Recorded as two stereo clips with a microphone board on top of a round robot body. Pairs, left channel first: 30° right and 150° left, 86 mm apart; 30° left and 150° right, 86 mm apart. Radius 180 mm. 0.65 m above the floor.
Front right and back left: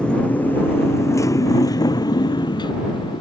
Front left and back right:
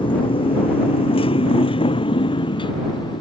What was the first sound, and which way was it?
A motorcycle, 50° left.